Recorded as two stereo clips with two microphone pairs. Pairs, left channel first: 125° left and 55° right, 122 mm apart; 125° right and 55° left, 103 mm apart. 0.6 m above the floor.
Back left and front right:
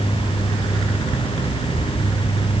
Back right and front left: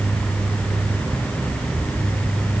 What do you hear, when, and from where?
Only background noise.